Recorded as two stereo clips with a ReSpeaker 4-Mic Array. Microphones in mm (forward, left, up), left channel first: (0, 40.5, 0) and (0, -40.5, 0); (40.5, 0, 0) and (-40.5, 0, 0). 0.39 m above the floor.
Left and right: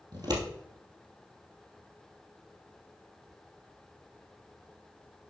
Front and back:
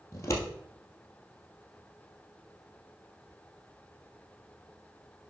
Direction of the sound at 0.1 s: 55° right.